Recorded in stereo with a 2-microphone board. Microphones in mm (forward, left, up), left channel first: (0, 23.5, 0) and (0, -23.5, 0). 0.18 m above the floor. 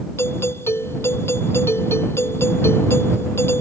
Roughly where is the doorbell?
Left.